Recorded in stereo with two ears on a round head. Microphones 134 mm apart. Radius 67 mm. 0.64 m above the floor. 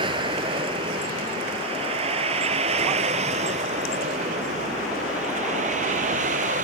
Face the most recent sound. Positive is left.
turn(degrees=-55)  # may be behind; listen again after turning